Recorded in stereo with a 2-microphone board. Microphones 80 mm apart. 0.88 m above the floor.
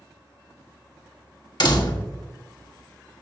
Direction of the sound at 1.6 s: 60° left (ahead or behind).